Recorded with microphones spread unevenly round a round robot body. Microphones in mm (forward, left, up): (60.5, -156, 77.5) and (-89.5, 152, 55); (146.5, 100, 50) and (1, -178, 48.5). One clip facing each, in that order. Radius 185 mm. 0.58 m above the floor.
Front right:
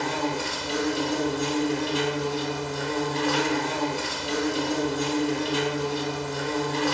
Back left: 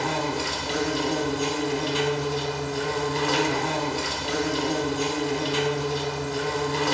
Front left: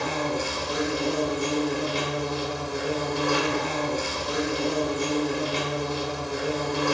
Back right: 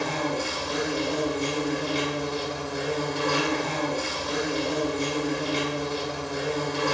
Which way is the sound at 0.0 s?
125° left.